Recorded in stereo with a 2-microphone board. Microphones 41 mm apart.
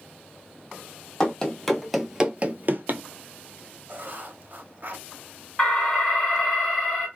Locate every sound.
1.2 s running footsteps: 20° left (ahead or behind), 0.8 m; by 3.0 s 65° right (ahead or behind), 0.6 m
3.9 s writing: 55° right (ahead or behind), 0.8 m
5.6 s an alarm: 15° left (ahead or behind), 2.5 m